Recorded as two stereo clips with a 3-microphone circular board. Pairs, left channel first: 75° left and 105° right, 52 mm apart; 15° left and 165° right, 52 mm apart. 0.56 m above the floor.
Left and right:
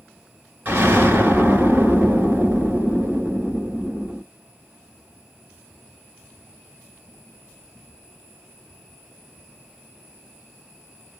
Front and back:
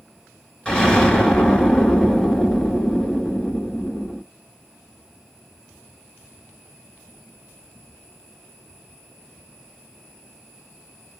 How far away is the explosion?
About 1.2 m.